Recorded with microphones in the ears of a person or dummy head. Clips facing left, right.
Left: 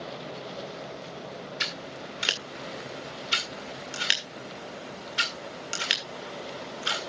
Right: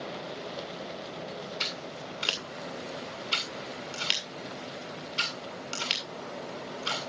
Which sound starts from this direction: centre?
Scissors, at 1.6 s.